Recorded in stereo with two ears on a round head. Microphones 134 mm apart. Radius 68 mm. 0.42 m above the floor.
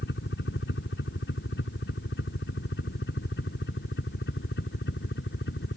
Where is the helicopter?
65° left (ahead or behind).